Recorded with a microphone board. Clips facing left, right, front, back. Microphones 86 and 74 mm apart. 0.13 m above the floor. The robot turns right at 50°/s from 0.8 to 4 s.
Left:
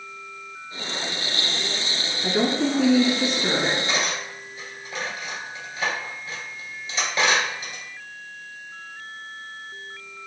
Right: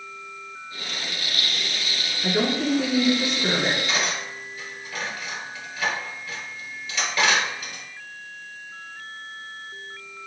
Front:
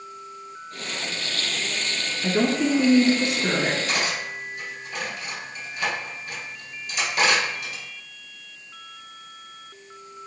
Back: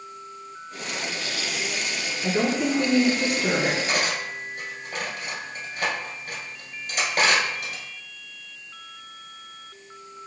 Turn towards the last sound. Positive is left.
turn(degrees=145)